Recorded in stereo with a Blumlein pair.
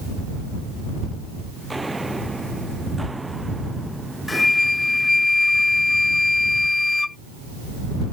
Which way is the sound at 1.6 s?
5° right.